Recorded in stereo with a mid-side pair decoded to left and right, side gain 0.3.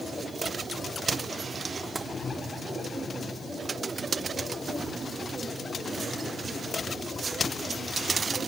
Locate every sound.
1.9 s tapping: 35° right, 1.7 m